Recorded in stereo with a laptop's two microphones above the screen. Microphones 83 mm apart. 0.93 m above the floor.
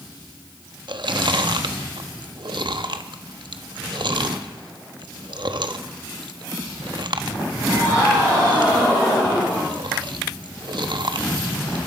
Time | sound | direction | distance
0.9 | chewing | 70° right (ahead or behind) | 1.1 m